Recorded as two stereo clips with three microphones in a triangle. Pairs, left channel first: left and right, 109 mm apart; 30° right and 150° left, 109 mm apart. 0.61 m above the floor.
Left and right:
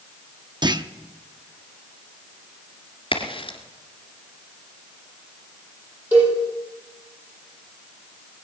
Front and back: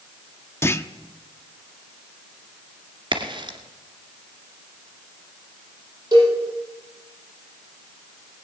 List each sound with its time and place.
0.6 s a clunk: 85° right, 0.6 m
3.1 s a crack: 115° left, 2 m
6.1 s a cowbell: 160° right, 7.5 m